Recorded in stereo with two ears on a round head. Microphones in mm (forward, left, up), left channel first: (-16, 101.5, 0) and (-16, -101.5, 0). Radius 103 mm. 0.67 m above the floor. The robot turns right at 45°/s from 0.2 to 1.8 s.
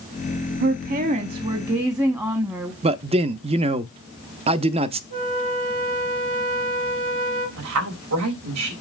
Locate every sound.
0.6 s a woman speaking: 70° right, 0.9 m; by 2.7 s 20° right, 0.9 m
2.8 s a man speaking: 25° right (ahead or behind), 0.5 m
5.1 s a flute: 65° right (ahead or behind), 4 m
7.6 s a woman speaking: 75° right (ahead or behind), 3.5 m